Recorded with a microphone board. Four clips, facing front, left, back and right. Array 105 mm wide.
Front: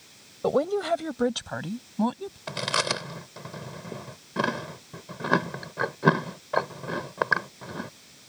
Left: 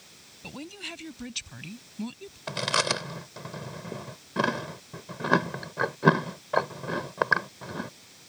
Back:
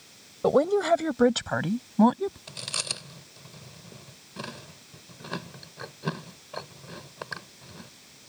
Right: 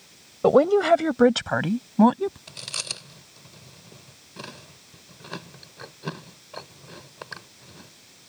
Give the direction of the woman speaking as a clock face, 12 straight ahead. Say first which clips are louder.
Right 26 dB, back 3 dB; 3 o'clock.